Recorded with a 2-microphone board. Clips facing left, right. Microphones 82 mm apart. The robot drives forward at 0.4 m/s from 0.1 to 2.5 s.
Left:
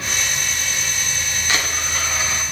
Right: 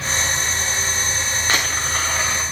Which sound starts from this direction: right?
A dropped coin, at 1.5 s.